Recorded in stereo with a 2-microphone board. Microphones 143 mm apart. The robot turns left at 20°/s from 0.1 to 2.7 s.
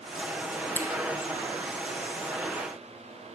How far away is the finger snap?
About 2.5 m.